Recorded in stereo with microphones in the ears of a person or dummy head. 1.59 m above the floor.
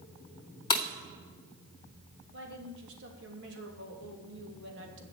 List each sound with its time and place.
0.7 s breaking glass: 30° left (ahead or behind), 1.1 m
2.3 s a woman speaking: 70° right (ahead or behind), 3 m